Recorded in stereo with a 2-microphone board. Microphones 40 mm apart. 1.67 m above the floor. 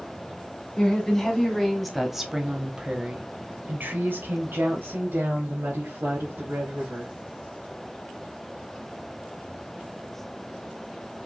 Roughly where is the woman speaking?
Centre.